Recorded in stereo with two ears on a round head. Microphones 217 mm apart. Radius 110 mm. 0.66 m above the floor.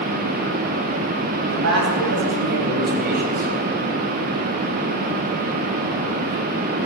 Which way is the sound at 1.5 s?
65° right (ahead or behind).